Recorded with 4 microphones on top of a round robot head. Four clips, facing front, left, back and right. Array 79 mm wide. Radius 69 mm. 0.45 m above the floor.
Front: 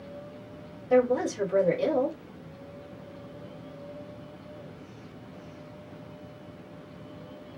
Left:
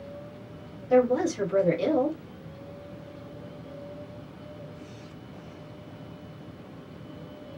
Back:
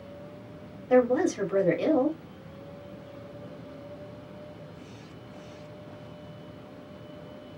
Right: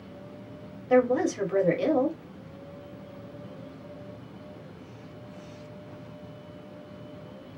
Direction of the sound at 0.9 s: 125° right.